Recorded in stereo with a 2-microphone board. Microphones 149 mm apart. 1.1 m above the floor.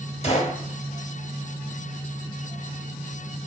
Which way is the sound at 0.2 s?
40° left (ahead or behind).